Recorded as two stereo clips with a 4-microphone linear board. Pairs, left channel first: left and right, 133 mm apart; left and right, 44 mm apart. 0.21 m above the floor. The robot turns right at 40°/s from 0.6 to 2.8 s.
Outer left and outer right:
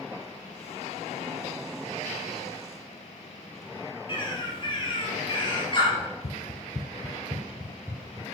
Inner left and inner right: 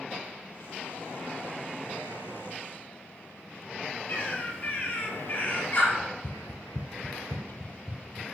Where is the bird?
40° left (ahead or behind), 5 m.